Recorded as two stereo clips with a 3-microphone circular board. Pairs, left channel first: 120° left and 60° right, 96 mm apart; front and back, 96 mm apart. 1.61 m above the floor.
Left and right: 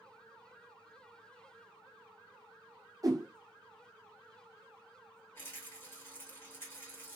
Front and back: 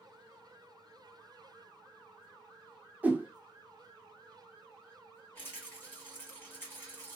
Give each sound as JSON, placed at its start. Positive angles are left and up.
{"t": 3.0, "sound": "a whoosh", "azimuth_deg": -105, "distance_m": 0.5}
{"t": 5.3, "sound": "a rattle", "azimuth_deg": 65, "distance_m": 1.4}